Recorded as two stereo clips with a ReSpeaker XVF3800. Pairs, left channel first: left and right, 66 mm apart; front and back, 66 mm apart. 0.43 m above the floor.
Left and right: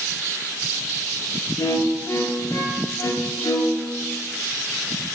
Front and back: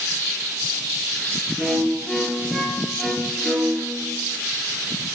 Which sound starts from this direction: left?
A violin, at 1.6 s.